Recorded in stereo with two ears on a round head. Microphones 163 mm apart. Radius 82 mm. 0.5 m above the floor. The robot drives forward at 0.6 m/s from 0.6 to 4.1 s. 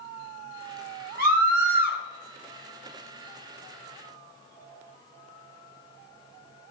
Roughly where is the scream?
Right.